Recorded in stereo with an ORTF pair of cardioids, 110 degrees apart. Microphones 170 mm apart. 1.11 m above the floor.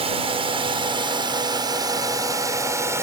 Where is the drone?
35° right; by 3.0 s 15° right.